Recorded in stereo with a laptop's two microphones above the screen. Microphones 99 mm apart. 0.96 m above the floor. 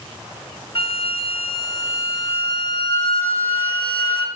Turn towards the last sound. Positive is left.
turn(degrees=65)  # may be behind; listen again after turning